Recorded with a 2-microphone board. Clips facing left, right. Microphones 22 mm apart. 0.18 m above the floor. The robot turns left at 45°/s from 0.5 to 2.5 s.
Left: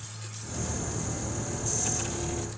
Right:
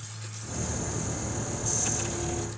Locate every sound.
Only background noise.